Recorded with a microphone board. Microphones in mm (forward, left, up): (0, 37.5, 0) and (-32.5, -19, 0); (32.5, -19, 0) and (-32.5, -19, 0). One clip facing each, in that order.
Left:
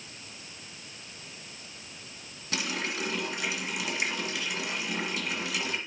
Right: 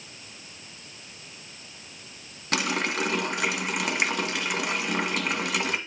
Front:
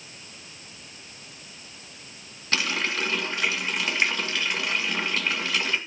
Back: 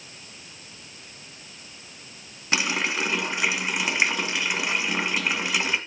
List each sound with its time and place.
2.5 s a running tap: 110° right, 1.9 m